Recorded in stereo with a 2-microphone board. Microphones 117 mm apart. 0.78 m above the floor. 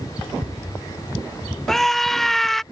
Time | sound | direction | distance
1.7 | a scream | centre (ahead or behind) | ?